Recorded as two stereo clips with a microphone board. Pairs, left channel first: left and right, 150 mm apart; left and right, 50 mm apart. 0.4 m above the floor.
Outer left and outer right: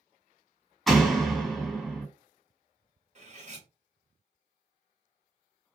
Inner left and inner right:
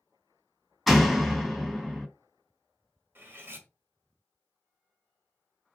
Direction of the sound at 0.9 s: Centre (ahead or behind).